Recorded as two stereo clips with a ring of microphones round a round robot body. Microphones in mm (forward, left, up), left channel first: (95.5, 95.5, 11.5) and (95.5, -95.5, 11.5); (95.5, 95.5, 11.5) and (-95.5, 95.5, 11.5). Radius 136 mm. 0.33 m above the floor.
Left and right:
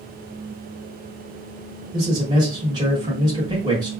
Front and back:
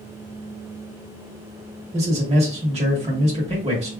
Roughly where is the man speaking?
Behind right.